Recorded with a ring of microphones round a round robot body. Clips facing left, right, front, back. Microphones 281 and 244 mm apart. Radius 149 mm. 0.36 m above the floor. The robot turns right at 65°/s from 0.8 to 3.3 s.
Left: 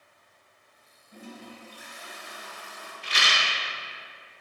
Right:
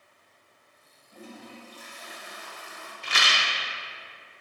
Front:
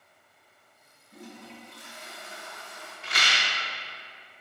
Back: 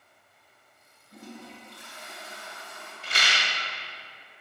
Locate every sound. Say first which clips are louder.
1.1 s a toilet flushing: left 1 dB, back 1 dB; 160° left, 0.9 m; by 2.9 s 80° right, 0.9 m
3.0 s a rattle: even, back 1 dB; 130° right, 0.5 m; by 3.5 s 110° right, 0.5 m